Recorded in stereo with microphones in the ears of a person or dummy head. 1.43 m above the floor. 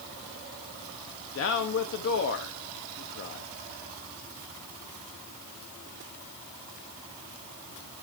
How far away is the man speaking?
About 0.8 m.